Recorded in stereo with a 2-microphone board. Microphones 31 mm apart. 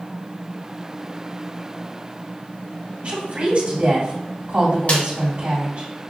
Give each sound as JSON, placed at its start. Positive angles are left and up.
{"t": 3.0, "sound": "a woman speaking", "side_deg": -50, "distance_m": 1.8}
{"t": 4.9, "sound": "a snare drum", "side_deg": 50, "distance_m": 1.1}